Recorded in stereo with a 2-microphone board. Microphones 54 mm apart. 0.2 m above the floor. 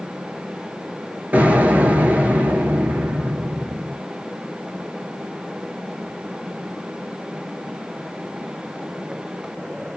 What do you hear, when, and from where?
1.3 s an explosion: 30° right (ahead or behind), 0.7 m